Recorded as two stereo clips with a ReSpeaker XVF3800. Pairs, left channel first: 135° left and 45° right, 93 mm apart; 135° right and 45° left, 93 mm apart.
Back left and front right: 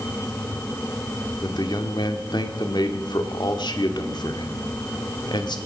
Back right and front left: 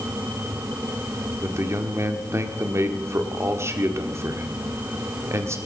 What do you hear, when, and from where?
1.4 s a man speaking: 100° left, 1.3 m